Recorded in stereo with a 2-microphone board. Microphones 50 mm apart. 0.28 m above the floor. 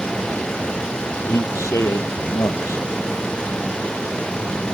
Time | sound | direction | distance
1.3 | a man speaking | 80° left | ?